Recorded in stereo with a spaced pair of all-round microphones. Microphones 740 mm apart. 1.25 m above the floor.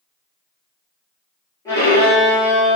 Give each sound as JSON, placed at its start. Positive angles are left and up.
{"t": 1.6, "sound": "a violin", "side_deg": 5, "distance_m": 1.9}